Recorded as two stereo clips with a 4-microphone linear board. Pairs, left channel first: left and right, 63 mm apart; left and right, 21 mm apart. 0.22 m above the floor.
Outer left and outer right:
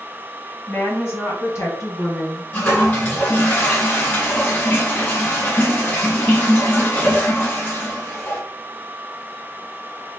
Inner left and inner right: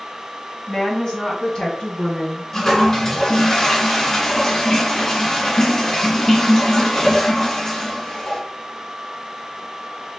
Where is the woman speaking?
35° left (ahead or behind), 1.4 m; by 2.4 s 60° left (ahead or behind), 2.5 m.